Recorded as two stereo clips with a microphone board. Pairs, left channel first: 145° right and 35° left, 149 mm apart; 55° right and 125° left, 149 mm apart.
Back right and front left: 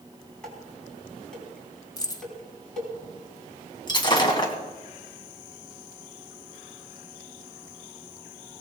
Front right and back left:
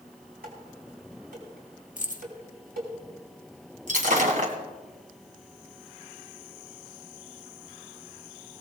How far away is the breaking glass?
About 2.0 m.